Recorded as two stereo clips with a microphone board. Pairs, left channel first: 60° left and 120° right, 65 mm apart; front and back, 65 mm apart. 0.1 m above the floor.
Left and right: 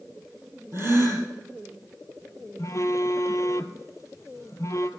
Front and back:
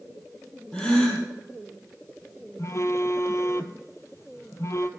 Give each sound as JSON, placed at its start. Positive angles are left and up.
{"t": 0.7, "sound": "a gasp", "azimuth_deg": -75, "distance_m": 3.0}
{"t": 2.6, "sound": "a phone buzzing", "azimuth_deg": 35, "distance_m": 0.7}